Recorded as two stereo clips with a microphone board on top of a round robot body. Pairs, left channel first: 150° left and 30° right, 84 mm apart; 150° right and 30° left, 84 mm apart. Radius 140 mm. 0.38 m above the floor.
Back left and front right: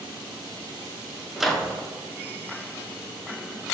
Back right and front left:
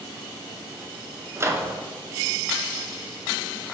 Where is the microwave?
55° left, 0.7 m.